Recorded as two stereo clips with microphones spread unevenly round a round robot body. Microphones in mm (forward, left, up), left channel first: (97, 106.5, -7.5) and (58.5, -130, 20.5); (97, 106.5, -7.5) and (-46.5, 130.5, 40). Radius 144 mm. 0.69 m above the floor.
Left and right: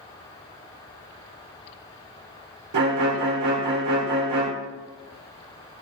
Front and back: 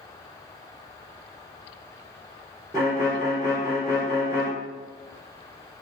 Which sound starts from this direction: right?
A violin, at 2.7 s.